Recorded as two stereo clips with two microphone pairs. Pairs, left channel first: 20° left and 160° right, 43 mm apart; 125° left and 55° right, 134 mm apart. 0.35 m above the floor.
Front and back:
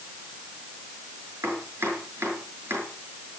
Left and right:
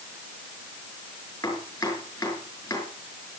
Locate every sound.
1.4 s chopping: 170° right, 5.5 m